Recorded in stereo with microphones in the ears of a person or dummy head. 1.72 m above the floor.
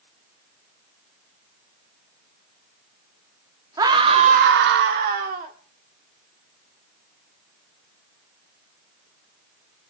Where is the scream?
20° right (ahead or behind), 1.4 m; by 5.5 s 40° right (ahead or behind), 1.5 m.